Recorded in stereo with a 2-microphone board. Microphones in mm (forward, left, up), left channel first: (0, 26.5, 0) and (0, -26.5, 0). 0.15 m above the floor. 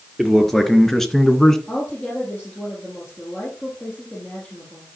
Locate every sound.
0.2 s a man speaking: 5° left (ahead or behind), 2.5 m; by 1.6 s 10° left (ahead or behind), 1.5 m
1.7 s a woman speaking: 25° left (ahead or behind), 5 m